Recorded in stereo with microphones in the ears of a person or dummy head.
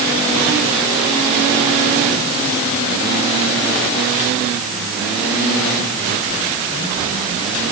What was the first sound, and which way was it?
Only background noise.